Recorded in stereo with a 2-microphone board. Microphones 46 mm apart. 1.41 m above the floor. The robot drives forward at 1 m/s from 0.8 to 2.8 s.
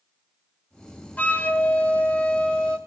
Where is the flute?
40° left (ahead or behind), 1.3 m; by 2.8 s 25° left (ahead or behind), 2 m.